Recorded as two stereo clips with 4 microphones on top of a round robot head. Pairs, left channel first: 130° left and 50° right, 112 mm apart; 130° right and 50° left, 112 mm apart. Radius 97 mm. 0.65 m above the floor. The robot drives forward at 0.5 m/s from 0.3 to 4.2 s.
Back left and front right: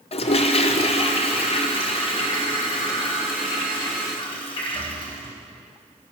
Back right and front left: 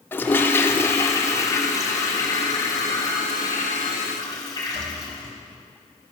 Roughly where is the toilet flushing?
Behind.